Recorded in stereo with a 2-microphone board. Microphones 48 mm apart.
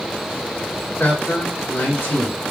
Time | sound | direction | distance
1.0 | a man speaking | 50° left (ahead or behind) | 3 m